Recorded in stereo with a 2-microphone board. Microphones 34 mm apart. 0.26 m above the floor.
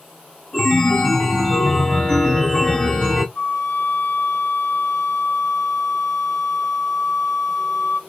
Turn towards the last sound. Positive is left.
turn(degrees=30)  # may be behind; listen again after turning